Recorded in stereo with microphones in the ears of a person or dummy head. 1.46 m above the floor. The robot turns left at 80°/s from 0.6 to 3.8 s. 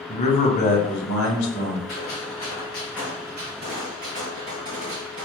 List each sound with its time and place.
0.1 s a man speaking: 145° left, 0.7 m; by 1.8 s 50° left, 0.7 m
1.9 s a gunshot: 95° left, 1.9 m; by 5.2 s 60° right, 1.9 m